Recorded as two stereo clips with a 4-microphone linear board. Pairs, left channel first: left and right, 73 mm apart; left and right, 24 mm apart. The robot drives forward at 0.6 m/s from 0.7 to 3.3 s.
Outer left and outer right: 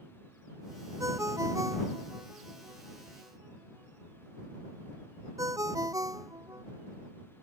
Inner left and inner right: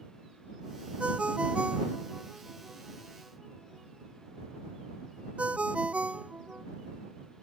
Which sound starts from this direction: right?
A ringtone, at 1.0 s.